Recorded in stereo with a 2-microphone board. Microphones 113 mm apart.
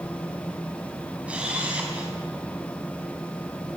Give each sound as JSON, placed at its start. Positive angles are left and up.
{"t": 1.3, "sound": "a camera shutter", "side_deg": -10, "distance_m": 5.0}